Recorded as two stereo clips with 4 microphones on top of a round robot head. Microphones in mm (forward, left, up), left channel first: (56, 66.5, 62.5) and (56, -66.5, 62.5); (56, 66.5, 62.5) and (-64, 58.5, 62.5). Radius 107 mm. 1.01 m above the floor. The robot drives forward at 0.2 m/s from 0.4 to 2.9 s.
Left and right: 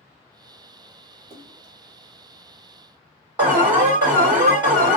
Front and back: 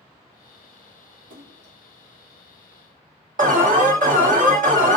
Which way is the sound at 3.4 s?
165° right.